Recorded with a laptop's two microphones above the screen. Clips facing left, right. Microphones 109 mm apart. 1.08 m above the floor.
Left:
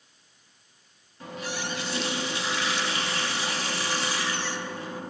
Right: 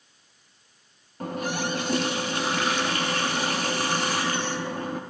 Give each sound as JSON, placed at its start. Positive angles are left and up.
{"t": 1.2, "sound": "a running tap", "side_deg": -50, "distance_m": 0.9}